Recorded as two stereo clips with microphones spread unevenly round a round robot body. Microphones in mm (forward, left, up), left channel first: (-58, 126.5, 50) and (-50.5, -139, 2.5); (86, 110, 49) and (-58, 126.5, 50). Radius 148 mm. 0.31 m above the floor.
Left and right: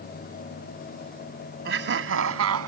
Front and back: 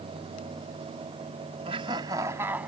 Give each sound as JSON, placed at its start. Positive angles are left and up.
{"t": 1.6, "sound": "laughter", "azimuth_deg": -130}